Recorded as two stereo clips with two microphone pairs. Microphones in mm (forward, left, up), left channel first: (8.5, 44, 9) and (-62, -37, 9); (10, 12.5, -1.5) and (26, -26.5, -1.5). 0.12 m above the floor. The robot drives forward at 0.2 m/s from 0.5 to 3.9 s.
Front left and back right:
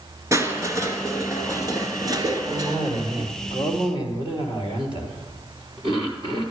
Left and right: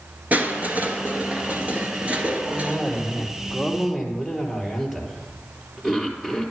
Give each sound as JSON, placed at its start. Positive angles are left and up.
{"t": 0.3, "sound": "crushing", "azimuth_deg": -85, "distance_m": 1.6}
{"t": 2.5, "sound": "a cough", "azimuth_deg": -150, "distance_m": 3.0}